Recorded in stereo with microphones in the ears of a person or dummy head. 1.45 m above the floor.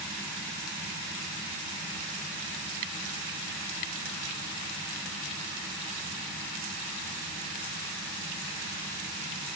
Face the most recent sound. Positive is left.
No sound to turn to.